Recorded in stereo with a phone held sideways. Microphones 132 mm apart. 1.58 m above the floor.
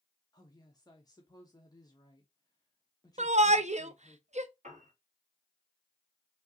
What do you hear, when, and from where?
0.3 s a woman speaking: 30° left (ahead or behind), 0.9 m
3.2 s a shout: 60° right (ahead or behind), 0.6 m
4.6 s a piano: 70° right (ahead or behind), 2.5 m